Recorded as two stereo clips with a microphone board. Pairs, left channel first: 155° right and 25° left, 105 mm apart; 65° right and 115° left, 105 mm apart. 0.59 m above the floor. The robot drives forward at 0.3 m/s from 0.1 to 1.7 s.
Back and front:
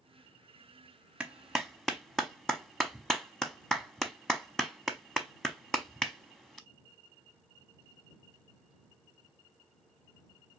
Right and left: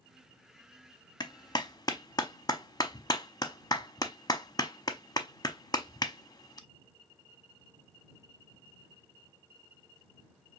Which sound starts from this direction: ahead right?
A clap, at 1.2 s.